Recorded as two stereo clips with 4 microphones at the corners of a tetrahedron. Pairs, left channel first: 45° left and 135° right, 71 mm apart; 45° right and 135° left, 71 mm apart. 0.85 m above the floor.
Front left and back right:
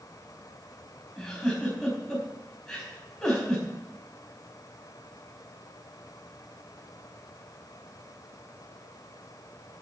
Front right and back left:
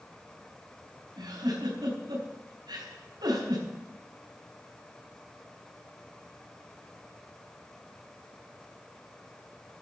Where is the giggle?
125° left, 4.5 m.